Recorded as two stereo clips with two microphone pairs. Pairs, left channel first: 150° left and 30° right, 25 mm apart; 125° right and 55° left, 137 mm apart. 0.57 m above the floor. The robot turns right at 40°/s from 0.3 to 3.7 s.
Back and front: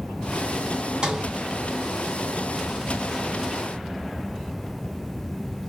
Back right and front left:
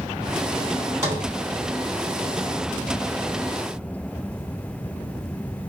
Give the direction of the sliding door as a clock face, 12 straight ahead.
12 o'clock.